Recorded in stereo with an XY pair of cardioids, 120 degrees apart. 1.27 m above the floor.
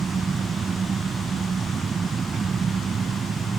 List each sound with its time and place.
0.0 s an engine running: 35° right